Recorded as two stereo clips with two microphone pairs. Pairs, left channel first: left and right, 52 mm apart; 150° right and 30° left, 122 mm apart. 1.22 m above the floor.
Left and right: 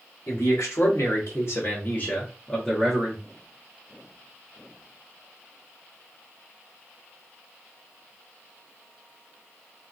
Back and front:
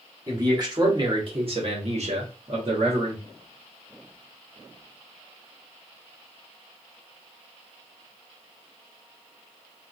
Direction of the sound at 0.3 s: 90° left.